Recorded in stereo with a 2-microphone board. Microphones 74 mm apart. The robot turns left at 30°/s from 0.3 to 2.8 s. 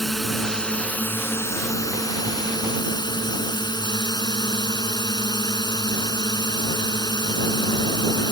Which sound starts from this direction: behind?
A drone, at 0.0 s.